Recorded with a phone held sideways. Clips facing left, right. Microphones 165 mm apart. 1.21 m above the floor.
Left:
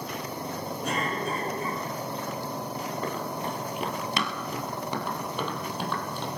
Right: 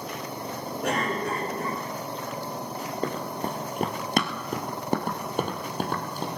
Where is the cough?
80° right, 5 m.